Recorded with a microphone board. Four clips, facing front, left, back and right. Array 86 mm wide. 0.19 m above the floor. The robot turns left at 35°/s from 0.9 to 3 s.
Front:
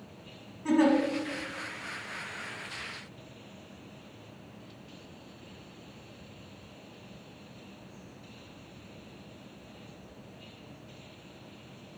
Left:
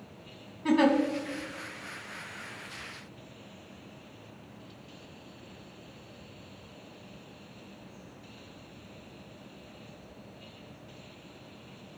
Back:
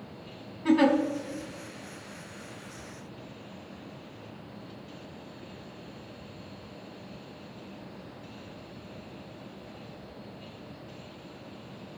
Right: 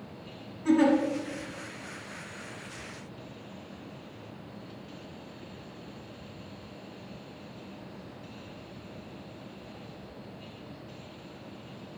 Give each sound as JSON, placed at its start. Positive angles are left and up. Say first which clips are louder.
{"t": 0.7, "sound": "a giggle", "louder": "right 1 dB, back 2 dB", "azimuth_deg": 125, "distance_m": 1.6}